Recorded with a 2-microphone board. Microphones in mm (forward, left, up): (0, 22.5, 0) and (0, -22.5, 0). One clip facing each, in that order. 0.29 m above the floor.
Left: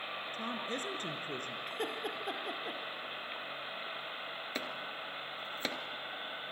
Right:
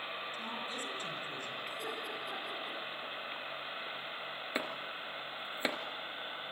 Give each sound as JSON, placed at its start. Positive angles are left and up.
{"t": 0.3, "sound": "a woman speaking", "side_deg": 50, "distance_m": 4.5}
{"t": 1.7, "sound": "laughter", "side_deg": 50, "distance_m": 6.0}
{"t": 4.5, "sound": "chopping", "side_deg": -15, "distance_m": 2.0}